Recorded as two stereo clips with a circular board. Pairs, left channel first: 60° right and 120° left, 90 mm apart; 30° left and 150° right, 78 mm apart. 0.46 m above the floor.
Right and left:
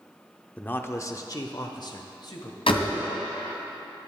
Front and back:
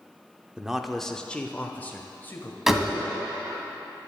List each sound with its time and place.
0.6 s a man speaking: 95° right, 0.7 m; by 2.6 s 30° right, 1.7 m
2.7 s a door slam: 65° right, 2 m